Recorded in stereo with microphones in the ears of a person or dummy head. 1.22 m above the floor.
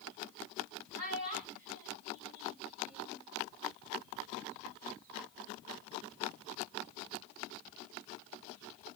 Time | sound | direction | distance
1.0 | a child speaking | 50° right (ahead or behind) | 3 m